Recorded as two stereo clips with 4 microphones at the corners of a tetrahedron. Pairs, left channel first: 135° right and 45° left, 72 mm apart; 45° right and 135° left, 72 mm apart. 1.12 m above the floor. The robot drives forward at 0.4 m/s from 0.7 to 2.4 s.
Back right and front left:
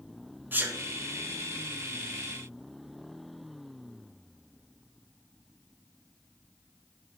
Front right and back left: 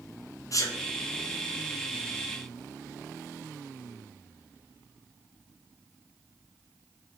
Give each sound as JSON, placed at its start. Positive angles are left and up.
{"t": 0.5, "sound": "a sneeze", "azimuth_deg": -15, "distance_m": 0.6}